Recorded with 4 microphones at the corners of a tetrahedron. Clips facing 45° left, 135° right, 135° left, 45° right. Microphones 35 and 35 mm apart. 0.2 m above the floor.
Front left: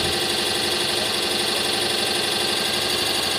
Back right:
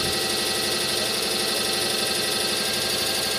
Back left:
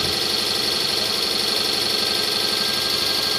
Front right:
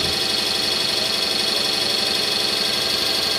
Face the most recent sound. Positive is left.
turn(degrees=55)